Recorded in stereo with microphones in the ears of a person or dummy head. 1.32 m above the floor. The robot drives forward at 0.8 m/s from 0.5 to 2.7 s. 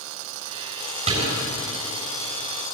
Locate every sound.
1.1 s a door slam: 45° right (ahead or behind), 7.5 m; by 1.4 s 40° right (ahead or behind), 7.5 m